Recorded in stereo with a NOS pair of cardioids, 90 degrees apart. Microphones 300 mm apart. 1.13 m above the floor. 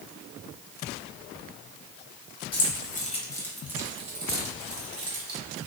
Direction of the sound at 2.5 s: 40° left.